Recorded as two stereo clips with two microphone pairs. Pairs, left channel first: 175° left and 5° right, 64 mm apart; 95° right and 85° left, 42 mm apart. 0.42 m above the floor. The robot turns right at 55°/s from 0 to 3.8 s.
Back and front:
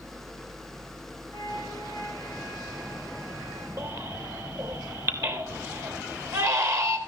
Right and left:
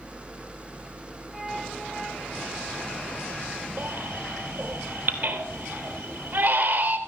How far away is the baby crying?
About 3 m.